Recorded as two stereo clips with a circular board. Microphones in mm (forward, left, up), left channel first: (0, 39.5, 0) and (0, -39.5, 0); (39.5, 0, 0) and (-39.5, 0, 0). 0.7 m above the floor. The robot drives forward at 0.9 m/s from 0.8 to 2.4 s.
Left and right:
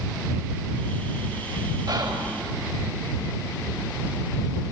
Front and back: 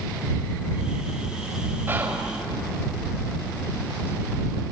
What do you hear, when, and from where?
1.9 s whispering: 115° right, 3.5 m; by 2.3 s 120° right, 4 m